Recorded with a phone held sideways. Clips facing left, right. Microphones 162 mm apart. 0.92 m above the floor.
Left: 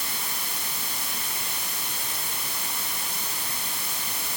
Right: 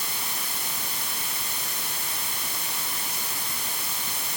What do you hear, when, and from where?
Only background noise.